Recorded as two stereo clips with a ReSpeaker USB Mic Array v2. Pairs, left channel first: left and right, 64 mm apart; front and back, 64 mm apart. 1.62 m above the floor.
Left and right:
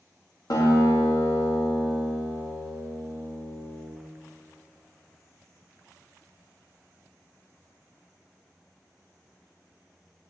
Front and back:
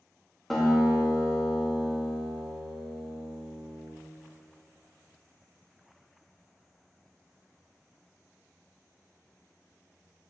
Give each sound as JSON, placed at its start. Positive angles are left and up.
{"t": 0.5, "sound": "a guitar", "azimuth_deg": 85, "distance_m": 2.0}